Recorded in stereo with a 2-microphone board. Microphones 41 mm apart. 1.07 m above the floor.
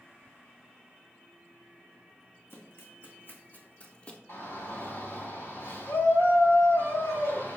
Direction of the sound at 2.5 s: 65° left (ahead or behind).